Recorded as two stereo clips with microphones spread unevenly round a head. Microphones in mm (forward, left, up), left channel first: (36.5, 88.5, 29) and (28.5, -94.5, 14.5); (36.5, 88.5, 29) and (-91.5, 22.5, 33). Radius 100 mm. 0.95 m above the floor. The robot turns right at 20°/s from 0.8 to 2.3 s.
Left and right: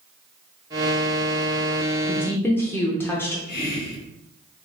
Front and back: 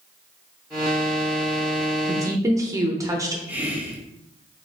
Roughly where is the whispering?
Behind left.